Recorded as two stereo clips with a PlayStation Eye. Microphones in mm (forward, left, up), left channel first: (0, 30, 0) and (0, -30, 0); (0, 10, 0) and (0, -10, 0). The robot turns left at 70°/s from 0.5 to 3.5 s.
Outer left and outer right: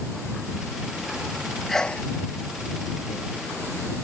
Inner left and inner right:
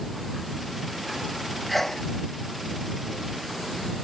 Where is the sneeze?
5° left (ahead or behind); by 2.1 s 30° left (ahead or behind).